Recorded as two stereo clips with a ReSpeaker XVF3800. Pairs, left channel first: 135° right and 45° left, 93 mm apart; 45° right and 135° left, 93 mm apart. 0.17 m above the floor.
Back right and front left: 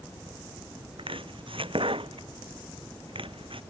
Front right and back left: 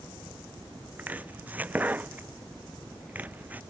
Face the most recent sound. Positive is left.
turn(degrees=65)